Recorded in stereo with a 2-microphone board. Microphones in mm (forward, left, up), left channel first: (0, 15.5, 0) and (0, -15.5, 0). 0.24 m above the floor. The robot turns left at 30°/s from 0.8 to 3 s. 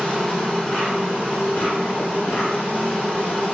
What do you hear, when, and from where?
0.0 s an insect: 135° left, 1.5 m; by 3.5 s 70° left, 1.5 m